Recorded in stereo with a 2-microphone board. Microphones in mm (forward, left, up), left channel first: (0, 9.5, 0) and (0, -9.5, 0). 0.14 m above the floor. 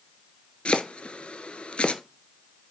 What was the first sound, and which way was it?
Chopping, 60° left (ahead or behind).